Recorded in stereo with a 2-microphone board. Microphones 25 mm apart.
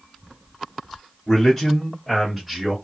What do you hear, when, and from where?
1.3 s a man speaking: 15° left (ahead or behind), 1.7 m; by 2.8 s 10° right (ahead or behind), 1.8 m